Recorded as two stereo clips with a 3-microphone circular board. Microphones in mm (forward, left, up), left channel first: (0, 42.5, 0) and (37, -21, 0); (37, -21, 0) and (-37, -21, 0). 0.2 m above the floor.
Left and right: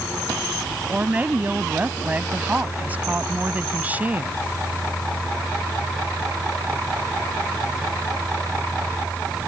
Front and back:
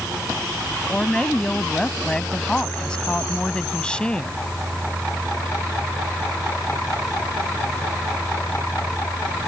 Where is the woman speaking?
55° right.